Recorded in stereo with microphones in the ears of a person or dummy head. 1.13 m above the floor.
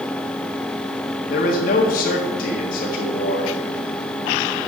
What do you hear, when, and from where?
1.3 s a man speaking: 45° left (ahead or behind), 1.6 m